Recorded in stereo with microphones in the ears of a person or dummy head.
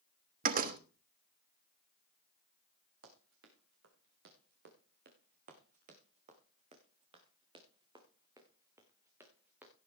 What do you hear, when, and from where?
0.4 s a door slam: 45° right (ahead or behind), 1.0 m
3.0 s running footsteps: 70° right (ahead or behind), 4.5 m; by 9.7 s 5° right (ahead or behind), 5 m